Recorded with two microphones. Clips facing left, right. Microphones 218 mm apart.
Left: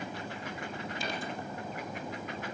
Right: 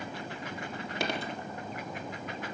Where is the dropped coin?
70° right (ahead or behind), 3.5 m.